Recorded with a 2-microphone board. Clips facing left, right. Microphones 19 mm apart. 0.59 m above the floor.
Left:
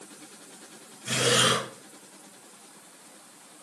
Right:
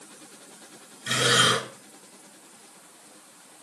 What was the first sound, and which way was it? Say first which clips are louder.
Breathing: right 2 dB; 50° right (ahead or behind).